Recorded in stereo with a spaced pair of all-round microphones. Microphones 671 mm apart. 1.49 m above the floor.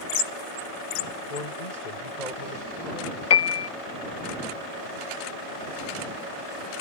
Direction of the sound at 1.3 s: 85° left.